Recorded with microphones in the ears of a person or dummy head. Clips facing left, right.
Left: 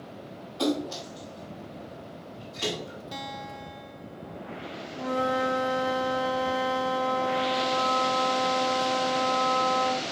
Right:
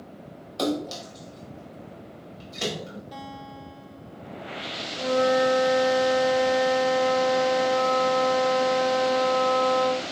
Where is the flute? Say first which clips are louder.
Right 6 dB; 65° right (ahead or behind), 4.5 m.